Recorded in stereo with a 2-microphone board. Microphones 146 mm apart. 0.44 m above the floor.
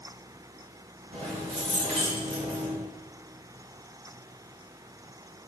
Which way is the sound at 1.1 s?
40° right (ahead or behind).